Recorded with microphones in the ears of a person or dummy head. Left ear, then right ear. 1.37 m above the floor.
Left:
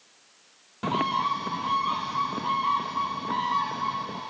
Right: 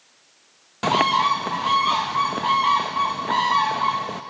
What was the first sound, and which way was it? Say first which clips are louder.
A bird: right 7 dB; 15° right (ahead or behind).